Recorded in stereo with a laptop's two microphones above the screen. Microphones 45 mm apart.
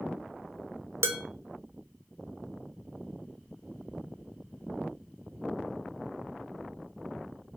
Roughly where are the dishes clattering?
Right.